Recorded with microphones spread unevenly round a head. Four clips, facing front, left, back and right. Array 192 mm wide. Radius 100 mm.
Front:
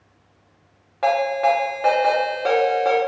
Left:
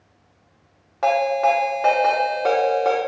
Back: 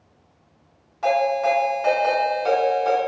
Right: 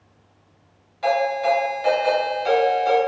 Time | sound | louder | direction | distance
1.0 | a ringtone | left 2 dB, front 1 dB | 55° left | 1.0 m